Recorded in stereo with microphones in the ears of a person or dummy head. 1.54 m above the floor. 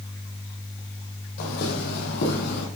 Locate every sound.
1.4 s footsteps: 60° left (ahead or behind), 3 m